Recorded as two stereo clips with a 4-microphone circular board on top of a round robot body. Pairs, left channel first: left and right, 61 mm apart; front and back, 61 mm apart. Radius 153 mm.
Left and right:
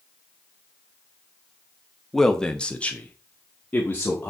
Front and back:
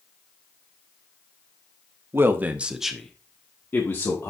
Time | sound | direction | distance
2.1 | a man speaking | 170° left | 1.5 m